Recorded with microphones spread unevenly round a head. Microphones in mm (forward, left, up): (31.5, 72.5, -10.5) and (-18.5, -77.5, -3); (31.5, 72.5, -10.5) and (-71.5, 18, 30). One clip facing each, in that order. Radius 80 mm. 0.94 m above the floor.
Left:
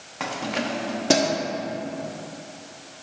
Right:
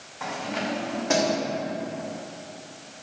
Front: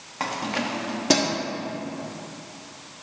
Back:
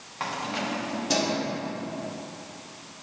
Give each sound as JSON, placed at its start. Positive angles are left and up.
{"t": 0.2, "sound": "keys jangling", "azimuth_deg": 60, "distance_m": 1.2}